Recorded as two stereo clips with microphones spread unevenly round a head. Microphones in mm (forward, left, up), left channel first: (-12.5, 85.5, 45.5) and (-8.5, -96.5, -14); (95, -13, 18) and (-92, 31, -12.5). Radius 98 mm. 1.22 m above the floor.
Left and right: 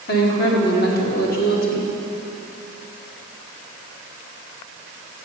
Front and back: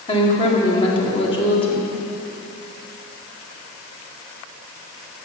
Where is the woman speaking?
50° left, 2.5 m.